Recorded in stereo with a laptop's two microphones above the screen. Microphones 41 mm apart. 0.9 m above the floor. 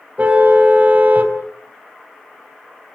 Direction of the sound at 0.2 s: 35° right (ahead or behind).